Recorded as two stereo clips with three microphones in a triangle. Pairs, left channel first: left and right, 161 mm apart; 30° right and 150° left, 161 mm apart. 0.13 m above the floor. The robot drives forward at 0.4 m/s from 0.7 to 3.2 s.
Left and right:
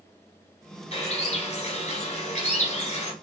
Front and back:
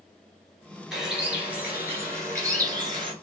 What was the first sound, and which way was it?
A bird, 65° left.